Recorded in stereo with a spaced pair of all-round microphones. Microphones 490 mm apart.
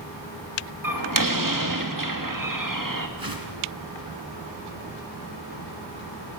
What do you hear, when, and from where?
0.8 s a door slam: 40° right (ahead or behind), 1.7 m
3.2 s a whoosh: 45° right (ahead or behind), 2.5 m